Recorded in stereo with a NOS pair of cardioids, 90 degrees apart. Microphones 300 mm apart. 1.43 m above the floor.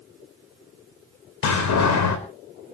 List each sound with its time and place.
1.4 s a door slam: 70° left, 4.5 m